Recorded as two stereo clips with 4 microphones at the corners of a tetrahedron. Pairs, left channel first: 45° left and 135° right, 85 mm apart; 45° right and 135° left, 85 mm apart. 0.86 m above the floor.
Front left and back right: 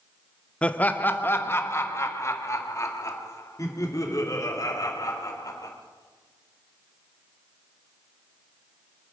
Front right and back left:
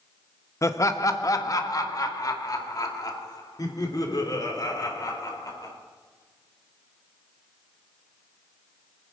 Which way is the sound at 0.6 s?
25° right.